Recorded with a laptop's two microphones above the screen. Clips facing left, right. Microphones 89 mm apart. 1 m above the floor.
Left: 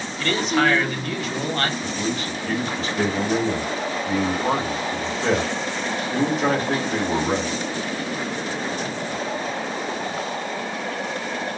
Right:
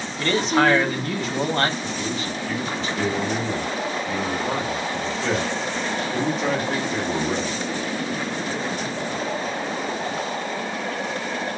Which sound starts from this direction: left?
A man speaking, at 1.8 s.